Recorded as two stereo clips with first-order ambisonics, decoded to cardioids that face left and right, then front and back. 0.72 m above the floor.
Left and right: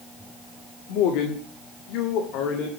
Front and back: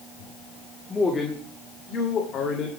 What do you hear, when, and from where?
0.9 s a man speaking: 80° left, 1.8 m; by 2.7 s 55° left, 2.5 m